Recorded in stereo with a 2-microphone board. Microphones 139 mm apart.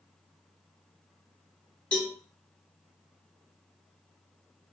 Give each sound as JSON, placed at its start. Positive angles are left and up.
{"t": 1.9, "sound": "a cowbell", "side_deg": 10, "distance_m": 1.1}